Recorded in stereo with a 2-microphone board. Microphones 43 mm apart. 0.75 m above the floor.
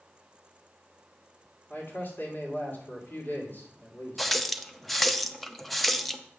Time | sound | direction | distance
1.7 | a man speaking | 50° left (ahead or behind) | 2.5 m
4.2 | a running tap | centre (ahead or behind) | 0.5 m